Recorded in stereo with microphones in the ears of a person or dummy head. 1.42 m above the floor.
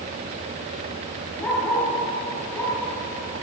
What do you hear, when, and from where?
1.4 s a dog barking: 10° left (ahead or behind), 6.5 m